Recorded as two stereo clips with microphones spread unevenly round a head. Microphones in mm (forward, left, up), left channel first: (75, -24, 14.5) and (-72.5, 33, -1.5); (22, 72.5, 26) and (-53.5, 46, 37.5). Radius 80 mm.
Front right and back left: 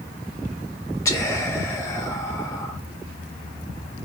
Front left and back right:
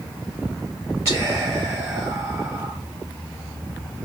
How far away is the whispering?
About 1.2 m.